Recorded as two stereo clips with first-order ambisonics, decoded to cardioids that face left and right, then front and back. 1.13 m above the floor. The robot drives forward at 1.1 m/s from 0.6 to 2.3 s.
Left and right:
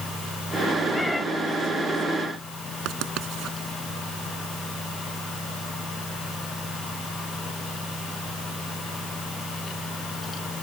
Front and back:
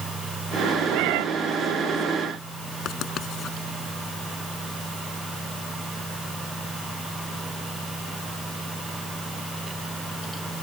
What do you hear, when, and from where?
0.9 s a cat meowing: 170° left; by 1.2 s 175° left
2.9 s writing: 50° right